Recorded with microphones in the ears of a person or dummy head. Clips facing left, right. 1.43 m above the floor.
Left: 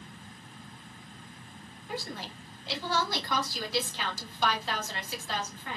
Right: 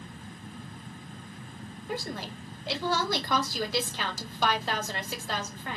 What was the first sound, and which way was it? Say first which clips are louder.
A woman speaking: right 3 dB; 45° right (ahead or behind).